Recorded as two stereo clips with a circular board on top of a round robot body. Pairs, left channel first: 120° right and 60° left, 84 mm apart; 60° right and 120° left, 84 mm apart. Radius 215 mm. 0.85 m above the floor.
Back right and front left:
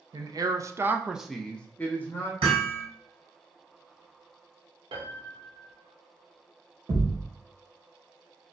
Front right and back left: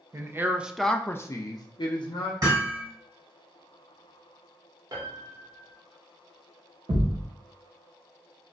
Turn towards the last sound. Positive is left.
turn(degrees=90)